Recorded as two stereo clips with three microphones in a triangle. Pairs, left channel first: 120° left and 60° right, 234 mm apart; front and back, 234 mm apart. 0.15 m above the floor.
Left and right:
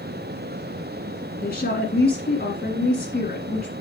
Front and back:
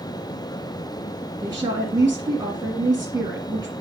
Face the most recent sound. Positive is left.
turn(degrees=120)